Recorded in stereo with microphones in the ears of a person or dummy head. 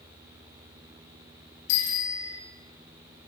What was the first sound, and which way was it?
A bicycle bell, 75° left (ahead or behind).